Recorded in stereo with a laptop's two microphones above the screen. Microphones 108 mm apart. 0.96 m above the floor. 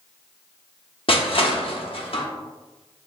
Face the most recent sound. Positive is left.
turn(degrees=60)  # may be behind; listen again after turning